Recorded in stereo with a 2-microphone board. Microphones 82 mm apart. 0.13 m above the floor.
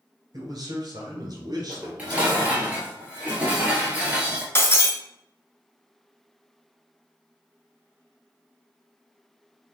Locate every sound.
0.3 s a man speaking: 45° right (ahead or behind), 1.8 m; by 2.7 s 40° right (ahead or behind), 2 m
1.7 s dishes clattering: 15° right (ahead or behind), 1.8 m
4.5 s breaking glass: 30° left (ahead or behind), 1.1 m